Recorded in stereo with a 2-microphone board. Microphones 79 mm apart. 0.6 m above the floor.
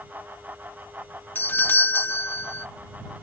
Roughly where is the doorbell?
Left.